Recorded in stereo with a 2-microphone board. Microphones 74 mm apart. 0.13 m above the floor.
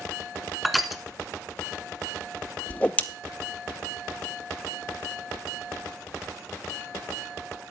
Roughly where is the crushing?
Centre.